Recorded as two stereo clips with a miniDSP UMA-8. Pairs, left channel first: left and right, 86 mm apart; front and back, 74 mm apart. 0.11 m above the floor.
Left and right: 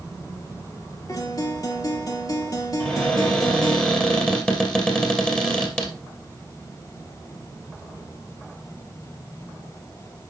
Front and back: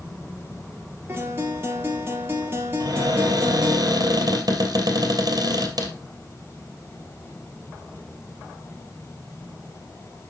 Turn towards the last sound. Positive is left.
turn(degrees=165)